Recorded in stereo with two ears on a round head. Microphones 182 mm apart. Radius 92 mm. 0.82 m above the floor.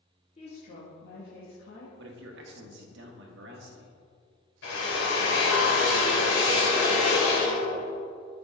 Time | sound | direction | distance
0.4 | a woman speaking | 35° left (ahead or behind) | 1.6 m
2.0 | a man speaking | 60° right (ahead or behind) | 1.3 m
4.6 | a drill | 70° left (ahead or behind) | 2.5 m